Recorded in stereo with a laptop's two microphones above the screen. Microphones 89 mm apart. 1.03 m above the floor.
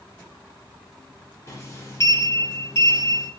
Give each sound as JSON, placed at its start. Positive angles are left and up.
{"t": 1.5, "sound": "a sliding door", "side_deg": 30, "distance_m": 0.5}